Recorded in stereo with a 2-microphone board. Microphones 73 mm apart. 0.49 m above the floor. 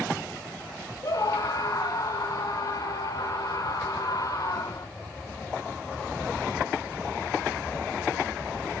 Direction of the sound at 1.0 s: 55° left (ahead or behind).